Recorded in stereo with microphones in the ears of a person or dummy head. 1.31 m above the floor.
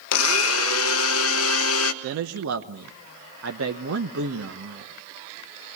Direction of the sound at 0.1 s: 75° left (ahead or behind).